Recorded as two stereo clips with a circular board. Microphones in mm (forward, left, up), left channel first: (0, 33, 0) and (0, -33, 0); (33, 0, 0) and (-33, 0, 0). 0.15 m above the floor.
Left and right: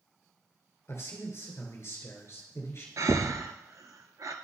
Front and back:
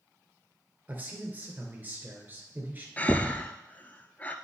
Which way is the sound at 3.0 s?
65° right.